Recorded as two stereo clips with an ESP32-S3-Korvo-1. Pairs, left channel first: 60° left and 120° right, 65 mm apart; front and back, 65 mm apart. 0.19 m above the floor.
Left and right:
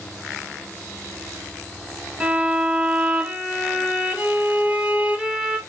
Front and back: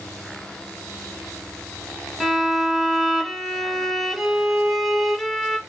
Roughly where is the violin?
Right.